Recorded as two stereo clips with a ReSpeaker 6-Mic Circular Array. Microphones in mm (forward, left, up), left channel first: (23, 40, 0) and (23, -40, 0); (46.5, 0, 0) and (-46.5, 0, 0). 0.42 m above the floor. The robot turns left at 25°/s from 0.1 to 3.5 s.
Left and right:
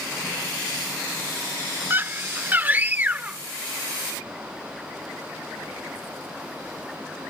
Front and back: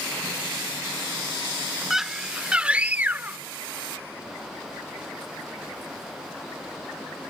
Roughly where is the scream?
Right.